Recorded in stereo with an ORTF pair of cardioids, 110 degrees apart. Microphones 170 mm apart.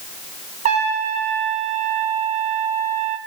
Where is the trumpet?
45° right, 1.2 m.